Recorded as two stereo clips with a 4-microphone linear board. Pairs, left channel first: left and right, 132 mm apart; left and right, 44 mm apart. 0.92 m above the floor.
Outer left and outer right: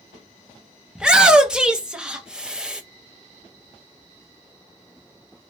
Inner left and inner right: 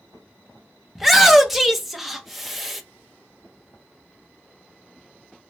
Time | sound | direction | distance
0.9 | a shout | 5° right (ahead or behind) | 0.6 m